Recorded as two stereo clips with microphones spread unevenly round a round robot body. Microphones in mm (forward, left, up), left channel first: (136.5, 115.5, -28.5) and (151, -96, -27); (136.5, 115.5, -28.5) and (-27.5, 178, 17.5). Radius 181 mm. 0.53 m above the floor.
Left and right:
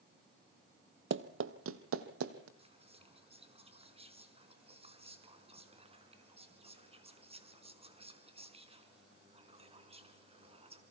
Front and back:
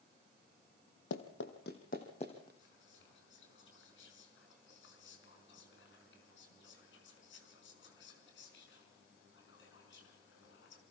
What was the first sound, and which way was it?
Running footsteps, 60° right.